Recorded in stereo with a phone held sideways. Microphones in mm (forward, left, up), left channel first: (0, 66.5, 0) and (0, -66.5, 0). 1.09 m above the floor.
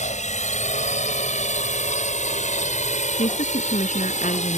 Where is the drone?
65° left (ahead or behind).